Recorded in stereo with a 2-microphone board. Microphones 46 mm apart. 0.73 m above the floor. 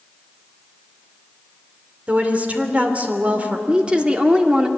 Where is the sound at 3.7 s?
25° right (ahead or behind), 1.9 m.